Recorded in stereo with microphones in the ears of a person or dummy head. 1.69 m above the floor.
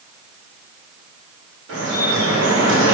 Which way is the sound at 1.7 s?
70° right (ahead or behind).